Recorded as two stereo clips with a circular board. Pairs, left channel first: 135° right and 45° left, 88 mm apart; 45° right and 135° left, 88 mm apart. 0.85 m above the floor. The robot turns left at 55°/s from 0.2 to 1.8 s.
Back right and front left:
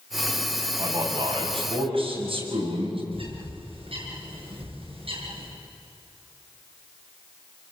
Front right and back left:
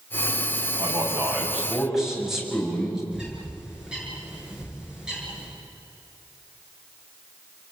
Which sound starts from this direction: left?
A man speaking, at 0.8 s.